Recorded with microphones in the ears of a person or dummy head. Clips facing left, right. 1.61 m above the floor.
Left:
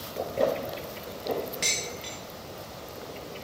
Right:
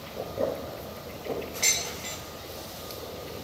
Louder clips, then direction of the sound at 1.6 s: Left 1 dB; 10° left (ahead or behind).